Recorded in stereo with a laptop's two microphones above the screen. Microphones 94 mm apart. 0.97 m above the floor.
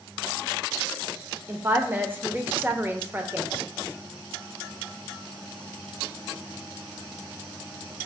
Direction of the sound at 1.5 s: 20° right (ahead or behind).